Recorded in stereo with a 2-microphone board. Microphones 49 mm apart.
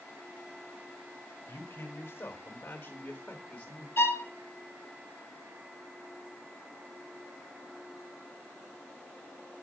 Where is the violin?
60° left (ahead or behind), 1.2 m.